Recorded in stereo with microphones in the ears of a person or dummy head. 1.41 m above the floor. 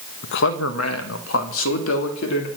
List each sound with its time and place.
0.2 s a man speaking: 55° left (ahead or behind), 1.4 m; by 2.5 s 75° left (ahead or behind), 3 m